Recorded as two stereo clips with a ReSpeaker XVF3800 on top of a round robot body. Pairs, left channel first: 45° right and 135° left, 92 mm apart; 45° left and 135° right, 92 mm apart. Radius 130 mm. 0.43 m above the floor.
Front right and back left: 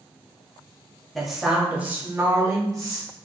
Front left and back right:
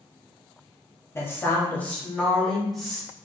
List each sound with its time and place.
1.1 s a woman speaking: 45° left, 1.1 m; by 3.1 s 140° left, 1.3 m